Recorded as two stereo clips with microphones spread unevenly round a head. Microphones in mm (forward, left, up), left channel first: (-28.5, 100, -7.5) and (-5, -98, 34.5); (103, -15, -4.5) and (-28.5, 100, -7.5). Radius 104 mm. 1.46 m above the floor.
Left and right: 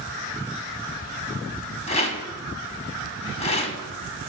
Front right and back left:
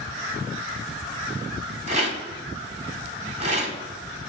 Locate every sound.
1.9 s a rattle: 155° left, 1.6 m